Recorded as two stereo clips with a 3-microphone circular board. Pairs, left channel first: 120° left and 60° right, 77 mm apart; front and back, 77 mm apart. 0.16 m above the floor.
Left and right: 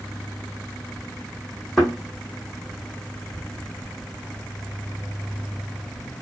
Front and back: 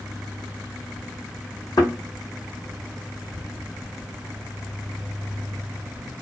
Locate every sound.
1.8 s a thud: 35° left, 1.8 m